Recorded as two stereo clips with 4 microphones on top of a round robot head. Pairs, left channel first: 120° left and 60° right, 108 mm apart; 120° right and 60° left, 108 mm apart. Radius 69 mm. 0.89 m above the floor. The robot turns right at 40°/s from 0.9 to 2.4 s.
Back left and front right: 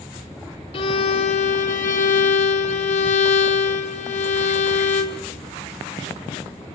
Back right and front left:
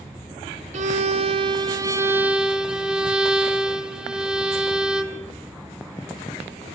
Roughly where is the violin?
Left.